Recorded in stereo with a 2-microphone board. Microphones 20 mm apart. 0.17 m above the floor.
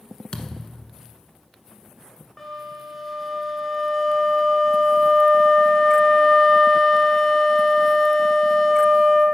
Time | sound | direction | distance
0.3 | a thud | 55° left (ahead or behind) | 0.8 m
2.4 | a flute | 15° left (ahead or behind) | 1.5 m